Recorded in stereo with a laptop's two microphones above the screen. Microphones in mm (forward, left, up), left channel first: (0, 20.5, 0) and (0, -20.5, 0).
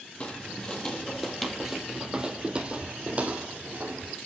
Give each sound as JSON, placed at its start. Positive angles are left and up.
{"t": 0.2, "sound": "footsteps", "side_deg": 30, "distance_m": 1.3}